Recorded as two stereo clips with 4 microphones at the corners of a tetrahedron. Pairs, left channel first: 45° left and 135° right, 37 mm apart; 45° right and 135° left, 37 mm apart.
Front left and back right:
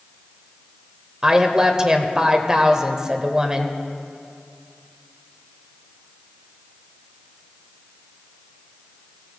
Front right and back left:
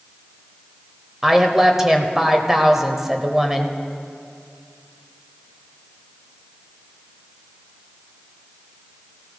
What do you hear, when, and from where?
1.2 s a woman speaking: 170° right, 0.9 m